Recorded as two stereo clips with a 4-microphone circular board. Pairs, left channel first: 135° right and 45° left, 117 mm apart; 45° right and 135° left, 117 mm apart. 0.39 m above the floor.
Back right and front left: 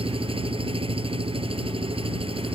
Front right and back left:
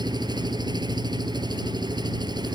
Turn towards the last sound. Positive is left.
turn(degrees=85)